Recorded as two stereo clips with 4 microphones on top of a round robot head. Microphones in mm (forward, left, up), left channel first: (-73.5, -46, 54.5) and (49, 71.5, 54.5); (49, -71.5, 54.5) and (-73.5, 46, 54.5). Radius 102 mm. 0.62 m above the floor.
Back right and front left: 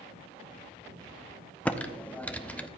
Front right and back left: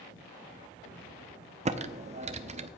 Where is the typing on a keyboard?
145° left, 0.8 m.